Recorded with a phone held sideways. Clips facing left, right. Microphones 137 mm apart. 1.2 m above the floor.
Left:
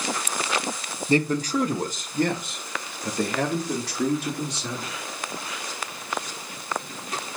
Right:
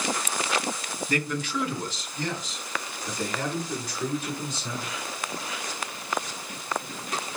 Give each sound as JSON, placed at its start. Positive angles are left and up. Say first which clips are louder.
{"t": 1.1, "sound": "a man speaking", "louder": "left 7 dB", "side_deg": 25, "distance_m": 0.9}